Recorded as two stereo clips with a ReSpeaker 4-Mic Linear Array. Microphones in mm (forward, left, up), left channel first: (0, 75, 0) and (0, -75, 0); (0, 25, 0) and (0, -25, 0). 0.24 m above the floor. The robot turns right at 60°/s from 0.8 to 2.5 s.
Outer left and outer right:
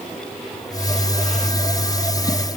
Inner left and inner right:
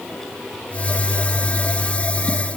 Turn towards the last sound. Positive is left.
No sound to turn to.